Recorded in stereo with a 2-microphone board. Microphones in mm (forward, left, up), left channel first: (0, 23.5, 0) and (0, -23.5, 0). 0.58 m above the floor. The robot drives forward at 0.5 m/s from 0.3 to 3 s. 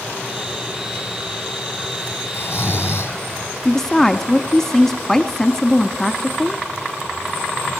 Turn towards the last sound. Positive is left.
turn(degrees=10)  # may be behind; listen again after turning